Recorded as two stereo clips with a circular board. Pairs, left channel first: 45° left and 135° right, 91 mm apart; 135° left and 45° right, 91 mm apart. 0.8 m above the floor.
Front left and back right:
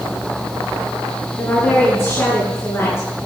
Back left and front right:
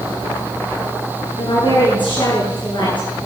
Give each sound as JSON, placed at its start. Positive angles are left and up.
{"t": 1.4, "sound": "a woman speaking", "azimuth_deg": 110, "distance_m": 9.0}